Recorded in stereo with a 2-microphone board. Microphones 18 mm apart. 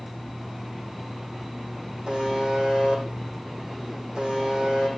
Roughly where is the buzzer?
Right.